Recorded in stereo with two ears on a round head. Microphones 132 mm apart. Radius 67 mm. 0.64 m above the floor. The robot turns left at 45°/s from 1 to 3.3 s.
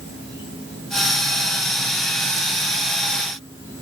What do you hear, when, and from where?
0.0 s an insect: 90° left, 7.5 m; by 3.8 s 15° right, 7.5 m